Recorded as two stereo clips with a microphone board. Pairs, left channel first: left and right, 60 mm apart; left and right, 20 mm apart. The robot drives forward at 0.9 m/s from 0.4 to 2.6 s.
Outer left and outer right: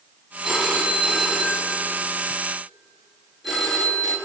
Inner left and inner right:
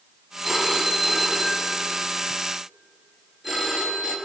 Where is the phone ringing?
5° right (ahead or behind), 2 m.